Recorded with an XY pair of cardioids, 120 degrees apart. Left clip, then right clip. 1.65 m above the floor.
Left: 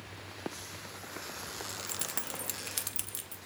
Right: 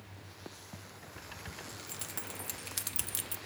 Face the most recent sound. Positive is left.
turn(degrees=-55)